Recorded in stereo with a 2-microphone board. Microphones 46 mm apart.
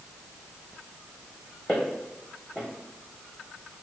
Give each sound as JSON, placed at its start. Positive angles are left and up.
{"t": 1.7, "sound": "footsteps", "side_deg": 30, "distance_m": 1.9}